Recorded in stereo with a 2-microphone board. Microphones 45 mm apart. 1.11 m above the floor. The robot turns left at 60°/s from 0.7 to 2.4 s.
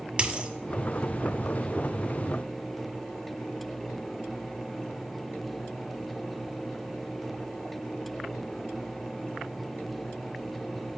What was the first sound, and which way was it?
A dropped coin, 25° right (ahead or behind).